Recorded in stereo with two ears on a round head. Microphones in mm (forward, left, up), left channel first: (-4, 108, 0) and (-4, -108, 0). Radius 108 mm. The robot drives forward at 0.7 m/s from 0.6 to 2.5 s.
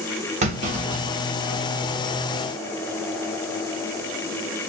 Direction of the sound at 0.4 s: 30° right (ahead or behind).